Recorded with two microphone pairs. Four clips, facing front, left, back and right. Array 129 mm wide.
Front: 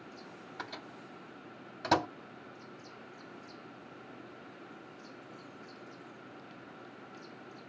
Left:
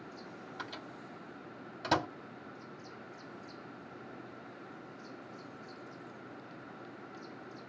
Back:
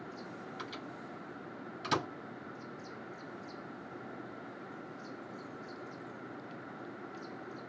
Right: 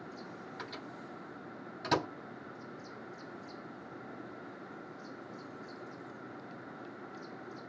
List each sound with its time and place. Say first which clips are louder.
0.6 s a microwave: left 1 dB, back 1 dB; 15° left, 5 m